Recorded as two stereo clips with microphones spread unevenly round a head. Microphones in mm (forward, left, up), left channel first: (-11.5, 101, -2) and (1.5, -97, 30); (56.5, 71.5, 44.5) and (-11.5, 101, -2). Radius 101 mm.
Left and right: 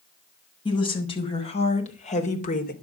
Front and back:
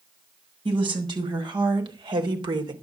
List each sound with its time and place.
0.7 s a woman speaking: 160° left, 6 m; by 2.7 s 140° left, 3 m